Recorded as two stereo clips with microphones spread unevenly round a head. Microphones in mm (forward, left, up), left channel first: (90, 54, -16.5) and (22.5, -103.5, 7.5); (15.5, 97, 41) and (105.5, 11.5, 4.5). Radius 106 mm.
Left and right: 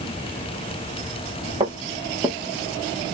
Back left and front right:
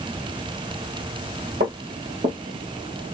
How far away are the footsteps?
About 2 m.